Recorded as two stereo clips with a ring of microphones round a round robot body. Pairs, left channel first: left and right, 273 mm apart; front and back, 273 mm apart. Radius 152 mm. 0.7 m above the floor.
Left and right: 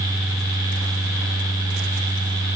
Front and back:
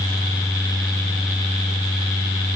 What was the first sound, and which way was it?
Only background noise.